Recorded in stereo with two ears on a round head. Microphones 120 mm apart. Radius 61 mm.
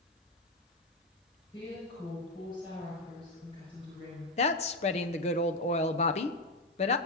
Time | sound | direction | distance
1.5 | a woman speaking | 35° left (ahead or behind) | 7 m
4.4 | a woman speaking | 45° left (ahead or behind) | 1.0 m